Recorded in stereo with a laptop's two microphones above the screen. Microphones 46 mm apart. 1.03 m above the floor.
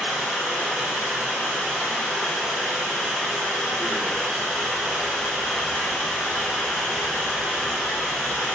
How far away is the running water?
About 1.3 m.